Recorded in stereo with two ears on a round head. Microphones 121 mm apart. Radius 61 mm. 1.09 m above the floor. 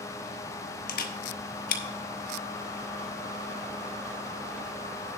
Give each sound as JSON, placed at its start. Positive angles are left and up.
{"t": 0.9, "sound": "a camera shutter", "side_deg": 65, "distance_m": 1.3}